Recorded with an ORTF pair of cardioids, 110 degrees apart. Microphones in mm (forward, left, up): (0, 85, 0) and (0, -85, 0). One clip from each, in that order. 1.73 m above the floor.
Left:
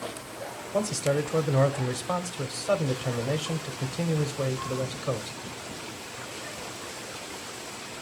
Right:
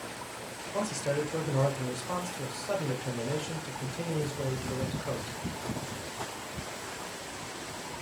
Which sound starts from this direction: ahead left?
A man speaking, at 0.7 s.